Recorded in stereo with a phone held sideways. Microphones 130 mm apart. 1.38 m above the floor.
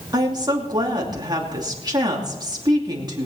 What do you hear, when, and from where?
0.1 s a woman speaking: 35° right (ahead or behind), 2.5 m